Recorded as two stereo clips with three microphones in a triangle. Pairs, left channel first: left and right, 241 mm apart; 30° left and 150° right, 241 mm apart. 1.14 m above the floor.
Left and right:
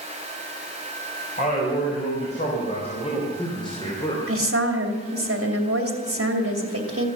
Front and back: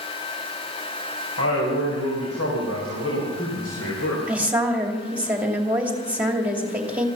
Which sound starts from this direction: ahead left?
A man speaking, at 1.4 s.